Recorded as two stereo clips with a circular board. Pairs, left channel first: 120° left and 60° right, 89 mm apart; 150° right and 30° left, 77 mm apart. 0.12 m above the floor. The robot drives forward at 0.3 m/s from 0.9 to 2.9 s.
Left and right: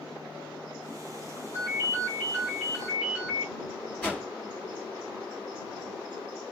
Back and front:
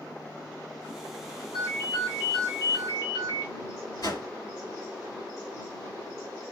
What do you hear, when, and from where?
1.5 s a ringtone: 175° right, 2 m
4.0 s a whoosh: 170° right, 3 m